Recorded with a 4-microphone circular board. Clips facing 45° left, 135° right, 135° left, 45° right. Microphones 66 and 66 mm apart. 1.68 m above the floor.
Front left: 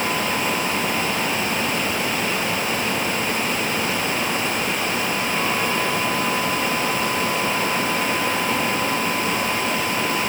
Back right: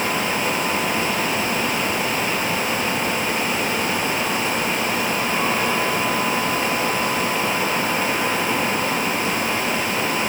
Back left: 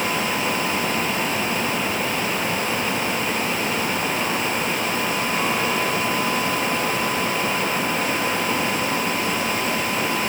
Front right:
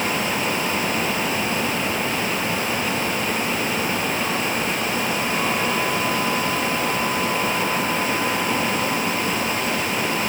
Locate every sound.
Only background noise.